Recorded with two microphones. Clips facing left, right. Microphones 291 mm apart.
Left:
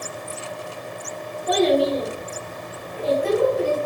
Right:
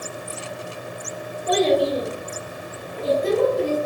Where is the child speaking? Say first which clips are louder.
Even; 30° right (ahead or behind), 1.2 m; by 3.8 s 40° right (ahead or behind), 0.8 m.